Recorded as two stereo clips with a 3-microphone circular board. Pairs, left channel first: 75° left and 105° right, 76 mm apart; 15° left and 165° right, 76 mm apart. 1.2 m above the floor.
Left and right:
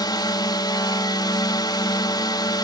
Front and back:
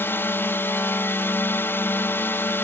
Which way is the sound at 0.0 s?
70° left.